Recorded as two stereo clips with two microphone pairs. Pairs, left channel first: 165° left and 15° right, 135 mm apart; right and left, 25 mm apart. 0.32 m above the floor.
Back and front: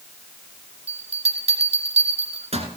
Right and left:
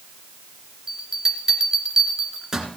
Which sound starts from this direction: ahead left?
A bell, at 0.9 s.